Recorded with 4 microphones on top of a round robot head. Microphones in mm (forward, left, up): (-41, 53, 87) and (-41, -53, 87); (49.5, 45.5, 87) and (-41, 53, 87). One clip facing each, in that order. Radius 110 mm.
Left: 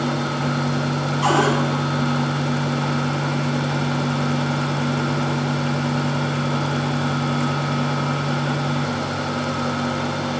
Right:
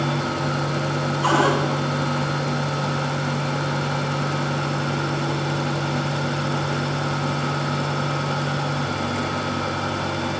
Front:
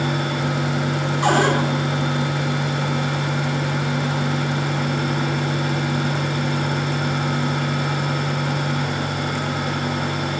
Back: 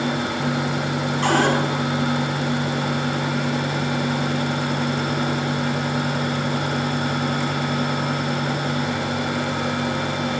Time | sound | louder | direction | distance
1.2 | a cupboard door | left 1 dB, front 1 dB | 70° left | 3 m